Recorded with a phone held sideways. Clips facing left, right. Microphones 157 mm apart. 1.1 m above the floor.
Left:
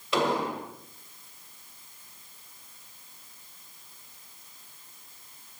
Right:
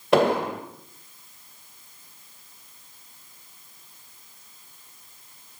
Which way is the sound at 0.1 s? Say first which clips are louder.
Right 7 dB; 60° right (ahead or behind).